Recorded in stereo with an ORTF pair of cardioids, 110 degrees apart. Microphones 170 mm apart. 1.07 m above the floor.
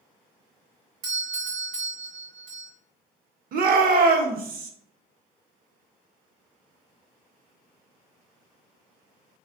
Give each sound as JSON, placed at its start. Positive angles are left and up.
{"t": 1.0, "sound": "a doorbell", "azimuth_deg": -60, "distance_m": 1.7}
{"t": 3.5, "sound": "a shout", "azimuth_deg": -60, "distance_m": 1.1}